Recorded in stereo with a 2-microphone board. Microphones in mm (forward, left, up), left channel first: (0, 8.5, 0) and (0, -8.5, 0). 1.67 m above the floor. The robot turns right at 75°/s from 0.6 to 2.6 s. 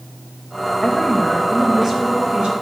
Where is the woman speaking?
120° left, 2.5 m; by 2.5 s 110° right, 2.5 m.